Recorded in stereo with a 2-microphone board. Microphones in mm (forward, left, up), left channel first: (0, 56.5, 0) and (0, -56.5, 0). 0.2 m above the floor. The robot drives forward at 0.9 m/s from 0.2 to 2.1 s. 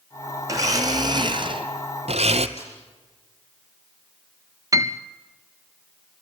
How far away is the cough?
No cough in this recording.